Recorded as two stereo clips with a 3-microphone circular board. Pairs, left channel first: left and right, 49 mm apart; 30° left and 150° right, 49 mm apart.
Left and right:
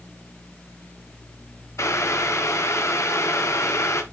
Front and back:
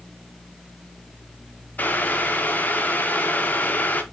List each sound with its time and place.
1.8 s boiling: 85° left, 1.4 m